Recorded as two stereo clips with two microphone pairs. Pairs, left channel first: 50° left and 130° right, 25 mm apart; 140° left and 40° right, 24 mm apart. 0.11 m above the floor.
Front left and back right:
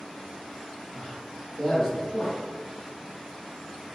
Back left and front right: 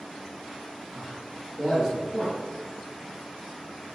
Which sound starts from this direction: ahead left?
A man speaking, at 0.9 s.